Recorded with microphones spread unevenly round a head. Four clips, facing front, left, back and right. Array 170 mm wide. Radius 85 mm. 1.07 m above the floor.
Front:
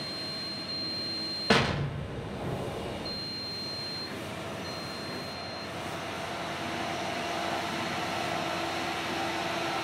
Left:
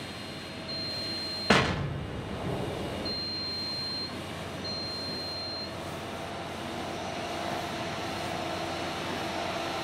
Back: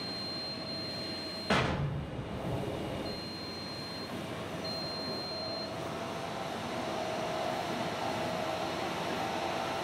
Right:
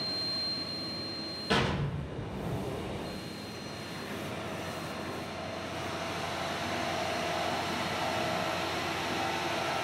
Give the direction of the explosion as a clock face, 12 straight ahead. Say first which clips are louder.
Left 4 dB, front 4 dB; 10 o'clock.